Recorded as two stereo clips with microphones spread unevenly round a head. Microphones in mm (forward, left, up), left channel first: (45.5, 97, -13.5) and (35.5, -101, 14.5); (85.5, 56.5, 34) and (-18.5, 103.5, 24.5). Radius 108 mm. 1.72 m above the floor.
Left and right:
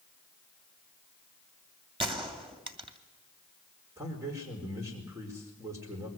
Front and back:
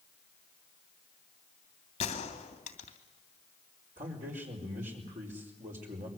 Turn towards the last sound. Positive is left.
turn(degrees=-170)